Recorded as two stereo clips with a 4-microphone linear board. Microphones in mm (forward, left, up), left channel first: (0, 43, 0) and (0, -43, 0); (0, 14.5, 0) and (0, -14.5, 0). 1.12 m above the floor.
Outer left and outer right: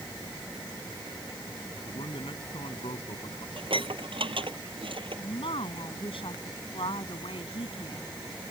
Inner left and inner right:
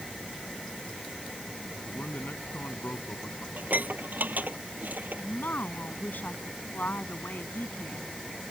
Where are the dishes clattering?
75° right (ahead or behind).